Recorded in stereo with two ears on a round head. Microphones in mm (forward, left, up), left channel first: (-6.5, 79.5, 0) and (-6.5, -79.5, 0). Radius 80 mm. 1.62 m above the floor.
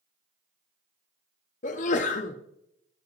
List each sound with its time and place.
1.6 s a sneeze: 45° left (ahead or behind), 0.6 m